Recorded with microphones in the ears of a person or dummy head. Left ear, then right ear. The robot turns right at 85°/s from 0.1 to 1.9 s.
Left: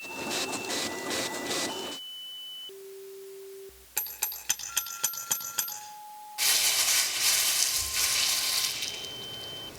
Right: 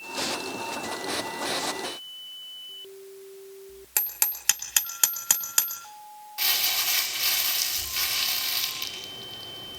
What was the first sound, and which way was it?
Hammering, 55° right (ahead or behind).